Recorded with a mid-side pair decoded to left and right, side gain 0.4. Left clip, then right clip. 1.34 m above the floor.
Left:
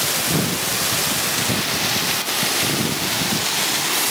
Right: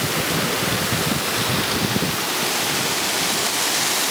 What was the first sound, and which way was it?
Only background noise.